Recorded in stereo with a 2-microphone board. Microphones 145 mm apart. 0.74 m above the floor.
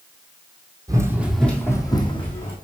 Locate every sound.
0.9 s running footsteps: 25° right (ahead or behind), 1.4 m; by 2.5 s 45° left (ahead or behind), 2 m